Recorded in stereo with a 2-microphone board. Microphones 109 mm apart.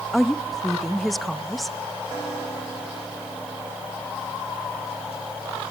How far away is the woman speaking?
About 0.8 m.